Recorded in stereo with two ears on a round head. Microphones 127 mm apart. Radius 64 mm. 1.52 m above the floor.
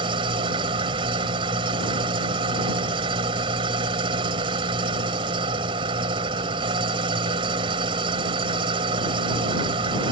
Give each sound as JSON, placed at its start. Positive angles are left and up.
{"t": 0.0, "sound": "an engine running", "side_deg": -40}